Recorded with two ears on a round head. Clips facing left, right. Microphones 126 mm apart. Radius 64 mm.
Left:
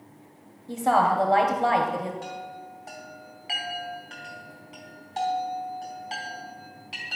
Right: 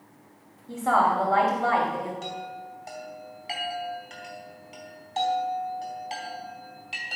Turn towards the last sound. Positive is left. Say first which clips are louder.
# right 1 dB
turn(degrees=-30)  # may be behind; listen again after turning